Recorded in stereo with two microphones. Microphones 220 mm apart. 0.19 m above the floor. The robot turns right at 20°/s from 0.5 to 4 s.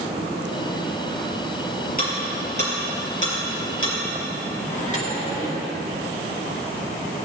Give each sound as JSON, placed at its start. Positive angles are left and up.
{"t": 2.0, "sound": "ticking", "side_deg": 40, "distance_m": 4.5}
{"t": 4.7, "sound": "a microwave", "side_deg": 35, "distance_m": 2.5}